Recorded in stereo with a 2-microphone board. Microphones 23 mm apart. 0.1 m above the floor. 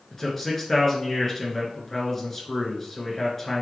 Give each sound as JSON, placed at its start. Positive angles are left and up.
{"t": 0.1, "sound": "a man speaking", "side_deg": 20, "distance_m": 1.1}